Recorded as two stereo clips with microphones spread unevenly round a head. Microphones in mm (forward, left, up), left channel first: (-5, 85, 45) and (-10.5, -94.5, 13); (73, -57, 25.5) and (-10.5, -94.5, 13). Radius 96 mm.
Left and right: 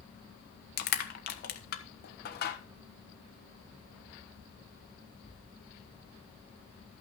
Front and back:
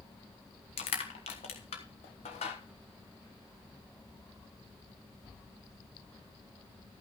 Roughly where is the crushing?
Ahead left.